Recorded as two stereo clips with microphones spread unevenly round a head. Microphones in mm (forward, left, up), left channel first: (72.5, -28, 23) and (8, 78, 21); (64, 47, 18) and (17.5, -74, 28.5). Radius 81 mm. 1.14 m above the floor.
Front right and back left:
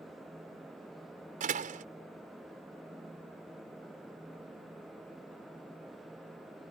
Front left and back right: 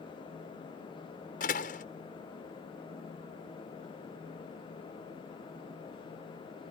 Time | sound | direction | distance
1.4 | a door slam | 105° left | ?